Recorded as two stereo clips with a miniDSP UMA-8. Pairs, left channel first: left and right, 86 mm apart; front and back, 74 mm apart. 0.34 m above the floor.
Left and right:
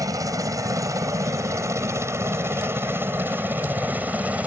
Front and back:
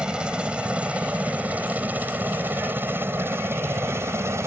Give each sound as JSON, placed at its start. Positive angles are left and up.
{"t": 0.0, "sound": "a helicopter", "azimuth_deg": -105}